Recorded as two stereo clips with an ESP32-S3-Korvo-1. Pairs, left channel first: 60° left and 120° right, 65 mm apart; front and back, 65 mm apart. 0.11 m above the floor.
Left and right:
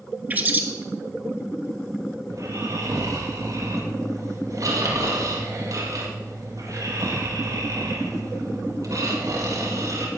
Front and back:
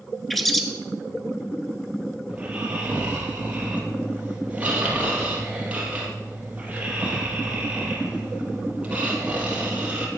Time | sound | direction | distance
0.3 | a bird | 85° right | 0.9 m
2.3 | snoring | 115° right | 3 m